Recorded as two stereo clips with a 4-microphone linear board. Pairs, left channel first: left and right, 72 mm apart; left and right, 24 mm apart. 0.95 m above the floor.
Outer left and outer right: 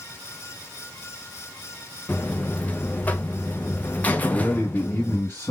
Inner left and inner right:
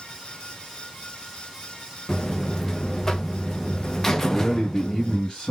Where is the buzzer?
25° left (ahead or behind), 0.6 m.